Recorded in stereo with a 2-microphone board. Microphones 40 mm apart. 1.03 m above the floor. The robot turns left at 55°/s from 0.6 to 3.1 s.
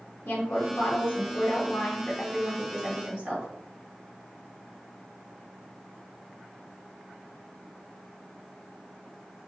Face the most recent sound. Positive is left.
turn(degrees=-40)